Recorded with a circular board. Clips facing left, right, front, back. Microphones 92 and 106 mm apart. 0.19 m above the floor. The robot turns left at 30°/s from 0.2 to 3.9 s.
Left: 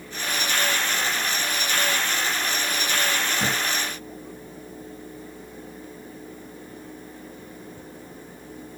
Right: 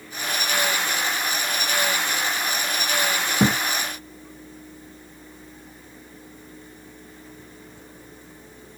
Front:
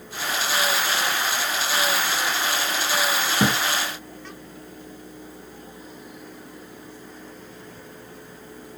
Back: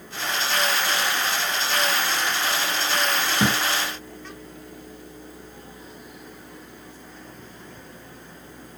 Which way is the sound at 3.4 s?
75° right.